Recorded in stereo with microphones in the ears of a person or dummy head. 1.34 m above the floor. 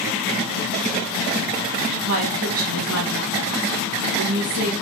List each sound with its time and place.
2.1 s a woman speaking: 80° right, 1.2 m